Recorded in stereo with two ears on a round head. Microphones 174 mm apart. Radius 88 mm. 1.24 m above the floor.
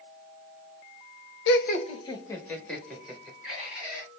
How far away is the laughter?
About 0.8 m.